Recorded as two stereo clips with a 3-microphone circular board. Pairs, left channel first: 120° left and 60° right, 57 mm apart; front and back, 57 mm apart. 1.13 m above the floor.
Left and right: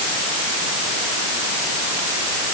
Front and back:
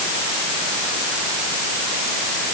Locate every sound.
Only background noise.